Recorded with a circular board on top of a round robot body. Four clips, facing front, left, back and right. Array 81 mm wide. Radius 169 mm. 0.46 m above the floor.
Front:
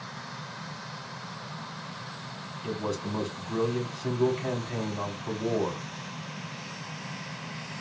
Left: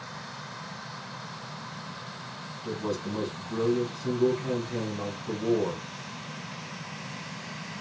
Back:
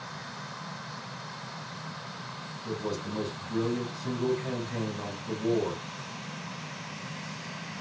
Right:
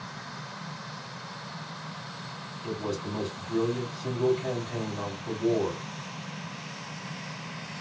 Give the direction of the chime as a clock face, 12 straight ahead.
I don't hear a chime.